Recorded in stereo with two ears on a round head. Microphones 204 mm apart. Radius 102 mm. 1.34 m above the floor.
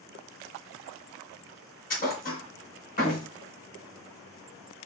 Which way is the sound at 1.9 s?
40° left (ahead or behind).